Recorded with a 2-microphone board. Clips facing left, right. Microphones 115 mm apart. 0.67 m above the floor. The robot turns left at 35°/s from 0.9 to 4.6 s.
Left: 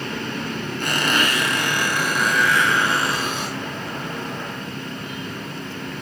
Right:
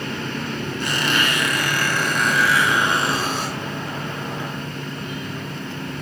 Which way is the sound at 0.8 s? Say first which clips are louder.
Left 1 dB; 50° left.